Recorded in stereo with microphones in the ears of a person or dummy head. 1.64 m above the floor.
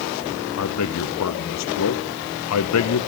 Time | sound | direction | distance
0.6 | a man speaking | 75° left (ahead or behind) | 0.9 m